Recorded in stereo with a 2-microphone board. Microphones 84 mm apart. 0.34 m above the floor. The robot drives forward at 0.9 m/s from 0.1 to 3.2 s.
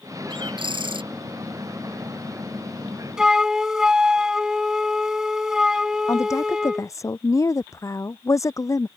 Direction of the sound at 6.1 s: 35° left (ahead or behind).